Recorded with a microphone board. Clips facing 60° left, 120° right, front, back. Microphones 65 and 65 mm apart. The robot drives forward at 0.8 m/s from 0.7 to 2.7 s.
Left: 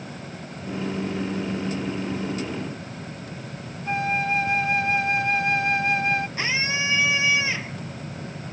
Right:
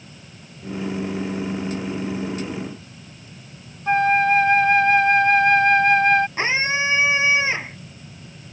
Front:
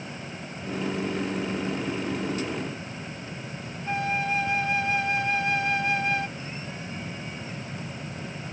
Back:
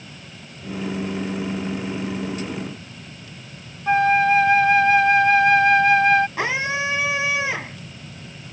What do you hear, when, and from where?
3.9 s a flute: 155° right
6.4 s a scream: straight behind